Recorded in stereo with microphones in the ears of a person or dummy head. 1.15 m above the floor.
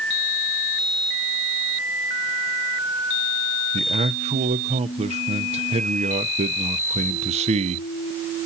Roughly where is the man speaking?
Right.